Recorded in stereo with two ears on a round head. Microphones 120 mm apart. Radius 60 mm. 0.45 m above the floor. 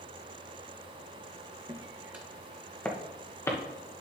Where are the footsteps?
30° right (ahead or behind), 1.5 m; by 3.6 s 20° left (ahead or behind), 2.5 m.